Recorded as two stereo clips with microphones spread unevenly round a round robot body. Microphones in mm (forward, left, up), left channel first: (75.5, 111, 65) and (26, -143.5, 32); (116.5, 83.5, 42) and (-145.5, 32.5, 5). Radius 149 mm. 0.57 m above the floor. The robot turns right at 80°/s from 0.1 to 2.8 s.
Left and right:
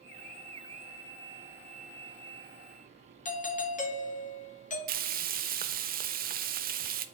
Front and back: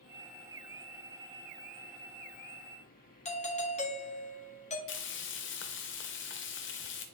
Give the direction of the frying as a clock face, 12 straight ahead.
1 o'clock.